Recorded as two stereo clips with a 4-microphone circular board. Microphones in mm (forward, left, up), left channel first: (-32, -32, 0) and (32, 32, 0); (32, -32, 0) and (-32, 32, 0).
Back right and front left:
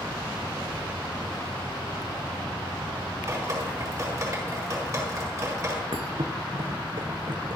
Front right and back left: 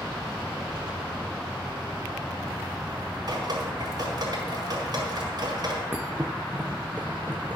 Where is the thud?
60° left, 1.3 m.